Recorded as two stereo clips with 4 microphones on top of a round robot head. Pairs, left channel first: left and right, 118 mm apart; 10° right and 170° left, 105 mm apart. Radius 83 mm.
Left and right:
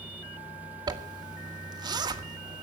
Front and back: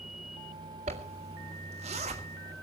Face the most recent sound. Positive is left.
turn(degrees=-145)